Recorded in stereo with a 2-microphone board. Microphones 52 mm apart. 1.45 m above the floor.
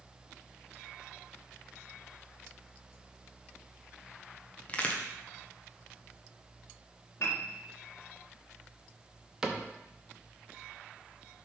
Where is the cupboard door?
15° right (ahead or behind), 0.8 m.